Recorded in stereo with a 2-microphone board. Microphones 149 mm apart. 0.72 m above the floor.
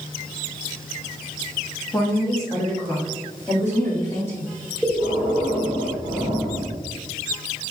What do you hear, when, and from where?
1.9 s a woman speaking: 20° left (ahead or behind), 0.9 m; by 4.5 s 15° left (ahead or behind), 2 m
4.8 s breathing: 5° left (ahead or behind), 1.5 m